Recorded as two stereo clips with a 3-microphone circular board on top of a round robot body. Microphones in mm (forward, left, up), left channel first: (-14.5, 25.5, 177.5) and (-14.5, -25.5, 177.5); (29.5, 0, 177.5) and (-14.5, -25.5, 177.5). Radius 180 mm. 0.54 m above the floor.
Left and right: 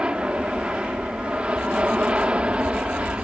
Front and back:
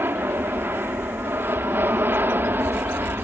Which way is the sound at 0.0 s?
150° right.